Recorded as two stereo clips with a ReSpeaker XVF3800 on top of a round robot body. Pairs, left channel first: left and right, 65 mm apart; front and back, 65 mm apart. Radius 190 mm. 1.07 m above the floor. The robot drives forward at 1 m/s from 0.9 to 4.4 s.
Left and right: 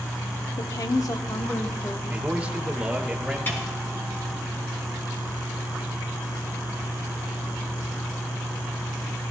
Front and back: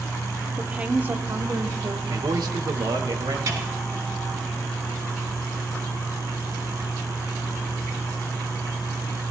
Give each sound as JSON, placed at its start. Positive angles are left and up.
{"t": 0.6, "sound": "a woman speaking", "azimuth_deg": 110, "distance_m": 0.9}
{"t": 2.1, "sound": "a man speaking", "azimuth_deg": -155, "distance_m": 1.2}
{"t": 3.5, "sound": "a snare drum", "azimuth_deg": 145, "distance_m": 5.0}